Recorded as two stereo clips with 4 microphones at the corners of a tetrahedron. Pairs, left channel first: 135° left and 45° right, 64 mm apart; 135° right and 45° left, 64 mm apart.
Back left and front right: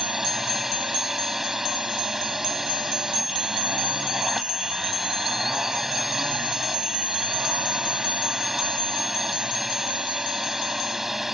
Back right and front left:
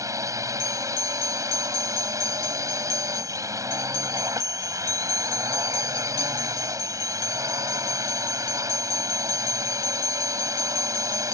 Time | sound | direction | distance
0.0 | a drone | 40° left | ?